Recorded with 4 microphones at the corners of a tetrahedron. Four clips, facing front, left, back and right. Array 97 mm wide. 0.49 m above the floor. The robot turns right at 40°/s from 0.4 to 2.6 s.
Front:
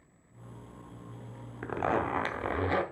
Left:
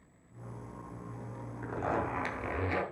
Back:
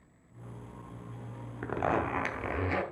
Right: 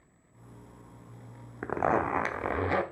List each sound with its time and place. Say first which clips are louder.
1.6 s a zipper: right 6 dB, even; 95° right, 0.7 m; by 2.8 s 55° right, 0.7 m